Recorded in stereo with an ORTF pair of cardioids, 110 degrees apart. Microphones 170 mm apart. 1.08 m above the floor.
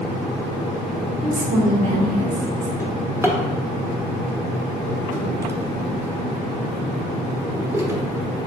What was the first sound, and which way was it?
A woman speaking, 50° right.